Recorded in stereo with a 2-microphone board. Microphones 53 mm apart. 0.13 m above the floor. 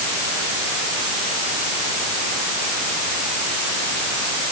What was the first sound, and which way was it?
Only background noise.